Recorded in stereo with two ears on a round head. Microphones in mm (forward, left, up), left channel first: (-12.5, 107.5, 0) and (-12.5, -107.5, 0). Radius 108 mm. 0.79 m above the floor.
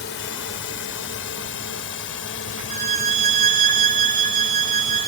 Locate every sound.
0.0 s a drone: 50° left (ahead or behind); by 5.1 s 60° left (ahead or behind)
2.7 s a violin: 35° right (ahead or behind)